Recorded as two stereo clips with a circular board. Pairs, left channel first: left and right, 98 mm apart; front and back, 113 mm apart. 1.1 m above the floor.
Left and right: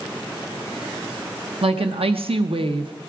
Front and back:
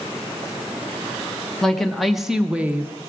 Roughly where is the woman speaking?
Right.